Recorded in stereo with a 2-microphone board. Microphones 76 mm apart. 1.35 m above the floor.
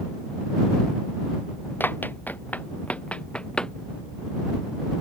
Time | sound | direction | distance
1.8 | running footsteps | 25° left (ahead or behind) | ?